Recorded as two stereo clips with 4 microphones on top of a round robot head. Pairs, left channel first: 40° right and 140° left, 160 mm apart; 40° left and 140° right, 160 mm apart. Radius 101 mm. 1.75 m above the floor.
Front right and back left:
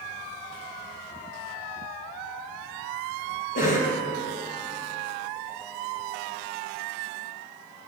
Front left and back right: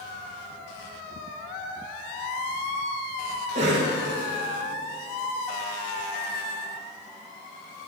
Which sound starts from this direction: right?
A cough, at 3.5 s.